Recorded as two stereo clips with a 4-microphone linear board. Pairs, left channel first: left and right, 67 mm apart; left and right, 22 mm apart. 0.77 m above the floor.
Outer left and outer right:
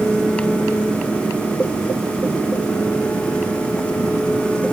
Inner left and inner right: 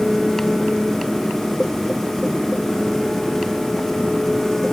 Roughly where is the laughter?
No laughter in this recording.